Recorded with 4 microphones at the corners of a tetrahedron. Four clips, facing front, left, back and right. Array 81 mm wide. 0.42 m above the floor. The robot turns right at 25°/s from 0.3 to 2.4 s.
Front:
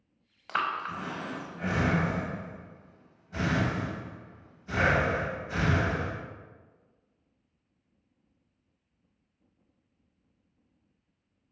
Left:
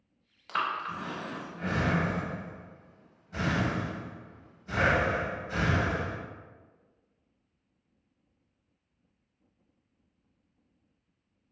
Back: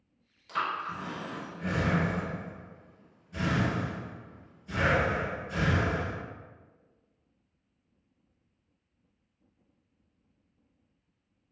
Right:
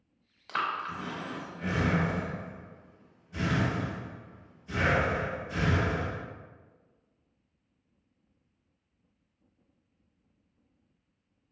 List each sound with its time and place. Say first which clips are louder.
0.5 s breathing: left 1 dB, front 2 dB; 10° right, 0.6 m; by 6.2 s 40° left, 0.6 m